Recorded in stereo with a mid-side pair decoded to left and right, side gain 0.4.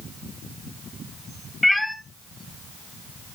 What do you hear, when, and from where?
1.6 s a cat meowing: 10° left, 2 m